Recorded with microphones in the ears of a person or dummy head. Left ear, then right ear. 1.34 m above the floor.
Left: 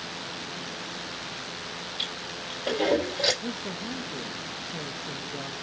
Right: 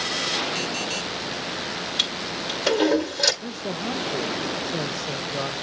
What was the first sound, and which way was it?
A toilet flushing, 80° right.